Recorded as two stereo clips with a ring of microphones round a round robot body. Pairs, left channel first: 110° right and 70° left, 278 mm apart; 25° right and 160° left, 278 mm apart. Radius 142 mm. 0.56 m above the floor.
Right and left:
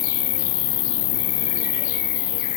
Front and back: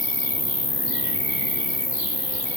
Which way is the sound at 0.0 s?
105° right.